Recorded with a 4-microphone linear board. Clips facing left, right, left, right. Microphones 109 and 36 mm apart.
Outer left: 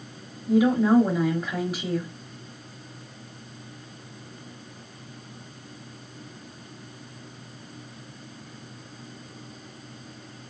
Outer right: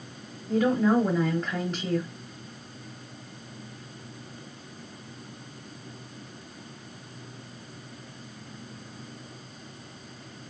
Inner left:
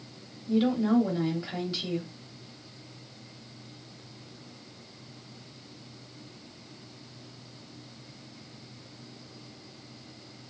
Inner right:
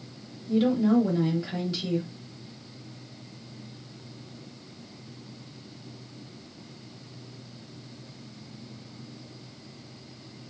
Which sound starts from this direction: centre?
A woman speaking, at 0.5 s.